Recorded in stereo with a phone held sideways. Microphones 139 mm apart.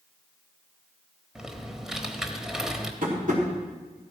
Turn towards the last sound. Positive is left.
turn(degrees=-70)  # may be behind; listen again after turning